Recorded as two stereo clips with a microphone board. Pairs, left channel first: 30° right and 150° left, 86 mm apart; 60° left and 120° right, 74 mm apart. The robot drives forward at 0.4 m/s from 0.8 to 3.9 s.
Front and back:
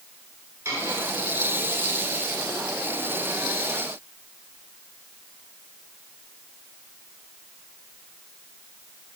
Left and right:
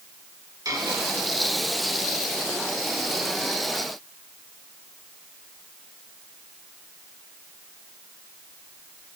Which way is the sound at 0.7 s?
155° right.